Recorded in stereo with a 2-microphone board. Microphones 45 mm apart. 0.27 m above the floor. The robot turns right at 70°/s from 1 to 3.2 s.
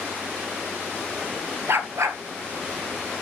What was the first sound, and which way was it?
A dog barking, 120° right.